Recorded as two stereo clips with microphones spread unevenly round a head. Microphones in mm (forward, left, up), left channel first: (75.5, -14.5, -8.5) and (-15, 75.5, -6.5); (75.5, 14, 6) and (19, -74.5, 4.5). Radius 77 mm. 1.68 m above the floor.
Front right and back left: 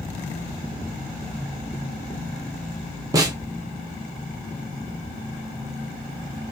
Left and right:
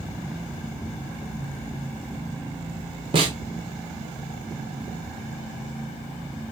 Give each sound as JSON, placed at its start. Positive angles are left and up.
{"t": 3.1, "sound": "a snare drum", "azimuth_deg": -165, "distance_m": 0.7}